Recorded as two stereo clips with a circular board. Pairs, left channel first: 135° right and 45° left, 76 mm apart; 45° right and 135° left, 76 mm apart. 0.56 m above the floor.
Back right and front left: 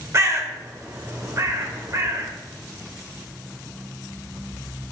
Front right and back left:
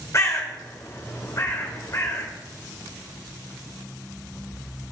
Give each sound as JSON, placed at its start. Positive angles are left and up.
{"t": 0.1, "sound": "a bird", "azimuth_deg": 0, "distance_m": 1.3}